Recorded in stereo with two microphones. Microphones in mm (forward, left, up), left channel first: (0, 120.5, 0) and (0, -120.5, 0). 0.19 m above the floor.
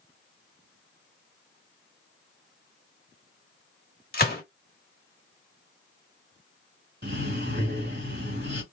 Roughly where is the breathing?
Right.